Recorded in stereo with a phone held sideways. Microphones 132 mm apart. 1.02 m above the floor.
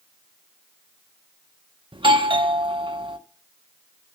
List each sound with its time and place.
1.9 s a doorbell: 40° right (ahead or behind), 1.0 m